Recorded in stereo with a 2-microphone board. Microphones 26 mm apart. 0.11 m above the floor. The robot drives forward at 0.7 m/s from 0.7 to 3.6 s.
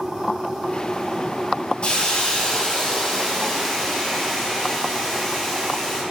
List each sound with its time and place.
1.8 s a hiss: 40° left (ahead or behind), 0.8 m; by 6.0 s 15° left (ahead or behind), 1.8 m